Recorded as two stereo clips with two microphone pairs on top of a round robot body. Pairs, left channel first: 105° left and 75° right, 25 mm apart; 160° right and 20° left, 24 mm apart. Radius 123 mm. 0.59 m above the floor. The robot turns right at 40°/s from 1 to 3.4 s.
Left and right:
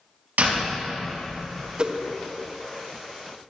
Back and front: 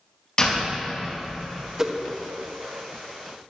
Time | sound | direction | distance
0.4 | a door slam | 95° right | 3.5 m
1.8 | a whoosh | 30° right | 1.3 m